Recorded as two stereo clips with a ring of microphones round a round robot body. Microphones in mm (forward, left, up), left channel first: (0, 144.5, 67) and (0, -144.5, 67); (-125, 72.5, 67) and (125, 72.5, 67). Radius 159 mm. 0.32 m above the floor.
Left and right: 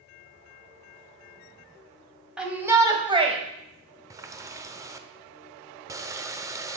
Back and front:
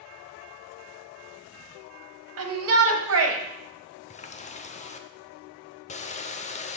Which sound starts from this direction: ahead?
A shout, at 2.4 s.